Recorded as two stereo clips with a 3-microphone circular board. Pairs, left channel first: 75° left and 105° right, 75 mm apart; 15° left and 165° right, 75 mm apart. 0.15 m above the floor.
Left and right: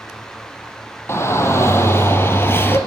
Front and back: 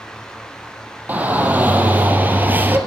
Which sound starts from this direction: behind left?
A shout, at 1.1 s.